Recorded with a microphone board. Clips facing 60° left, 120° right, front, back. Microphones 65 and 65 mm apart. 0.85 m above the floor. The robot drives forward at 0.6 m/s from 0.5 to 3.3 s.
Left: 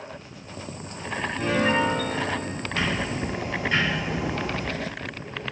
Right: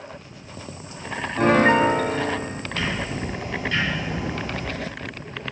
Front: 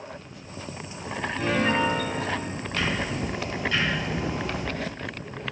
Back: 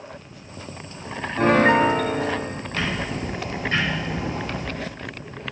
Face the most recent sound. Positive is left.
turn(degrees=130)